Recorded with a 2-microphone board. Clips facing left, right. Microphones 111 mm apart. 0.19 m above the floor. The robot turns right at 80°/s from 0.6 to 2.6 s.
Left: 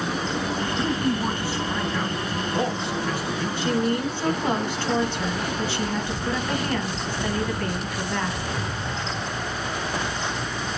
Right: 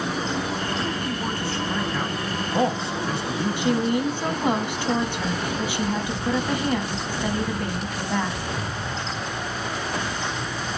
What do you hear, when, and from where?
0.8 s a man speaking: 30° left (ahead or behind), 1.1 m; by 4.6 s 30° right (ahead or behind), 1.1 m
3.6 s a woman speaking: 15° right (ahead or behind), 1.8 m